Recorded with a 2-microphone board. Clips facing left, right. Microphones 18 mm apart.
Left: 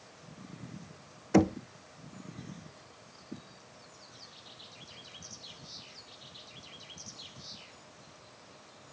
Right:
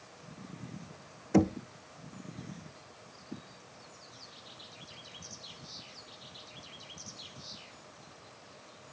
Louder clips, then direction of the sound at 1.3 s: Left 1 dB; 20° left (ahead or behind).